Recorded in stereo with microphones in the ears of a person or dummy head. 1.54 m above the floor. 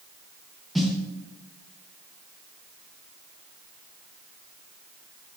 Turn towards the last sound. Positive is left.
turn(degrees=0)  # may be behind; listen again after turning